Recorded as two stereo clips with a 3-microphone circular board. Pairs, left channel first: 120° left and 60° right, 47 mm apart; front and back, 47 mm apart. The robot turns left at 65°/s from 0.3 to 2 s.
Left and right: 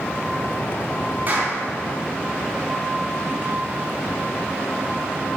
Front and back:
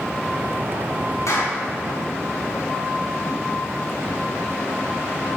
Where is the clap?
10° right, 3 m; by 1.6 s 35° right, 3 m.